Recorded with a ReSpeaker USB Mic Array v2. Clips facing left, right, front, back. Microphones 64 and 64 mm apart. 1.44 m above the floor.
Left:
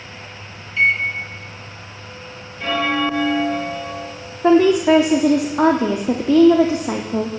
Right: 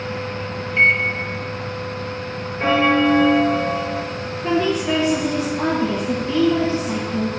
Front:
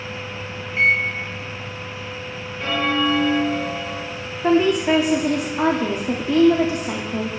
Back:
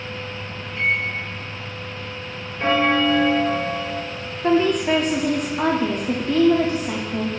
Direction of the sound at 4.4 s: 80° left.